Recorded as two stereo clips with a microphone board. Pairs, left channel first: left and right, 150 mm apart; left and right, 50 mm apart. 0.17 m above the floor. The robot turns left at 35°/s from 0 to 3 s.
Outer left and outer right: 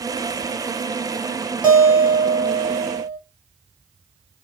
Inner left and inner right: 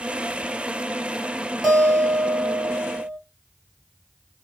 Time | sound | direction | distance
1.6 | a guitar | 175° right | 1.5 m